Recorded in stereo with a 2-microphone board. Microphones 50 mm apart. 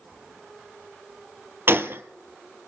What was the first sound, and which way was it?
A gunshot, 50° right (ahead or behind).